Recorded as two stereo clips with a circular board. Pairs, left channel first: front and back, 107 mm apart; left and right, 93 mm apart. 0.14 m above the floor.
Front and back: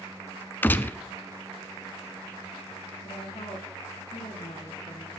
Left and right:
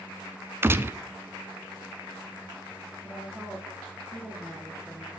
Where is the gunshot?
55° right, 0.6 m.